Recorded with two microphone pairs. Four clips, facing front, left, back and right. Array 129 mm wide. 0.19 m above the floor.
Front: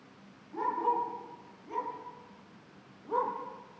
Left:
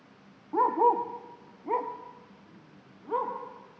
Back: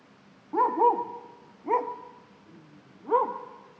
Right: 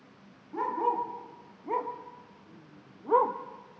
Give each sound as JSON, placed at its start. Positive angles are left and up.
{"t": 0.5, "sound": "a dog barking", "azimuth_deg": 140, "distance_m": 2.0}